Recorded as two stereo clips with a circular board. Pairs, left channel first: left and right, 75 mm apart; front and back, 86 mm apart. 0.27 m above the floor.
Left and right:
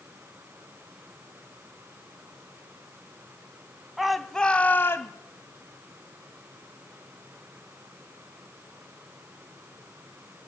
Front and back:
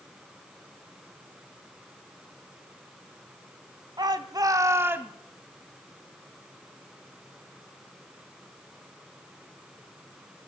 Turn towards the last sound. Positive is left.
turn(degrees=115)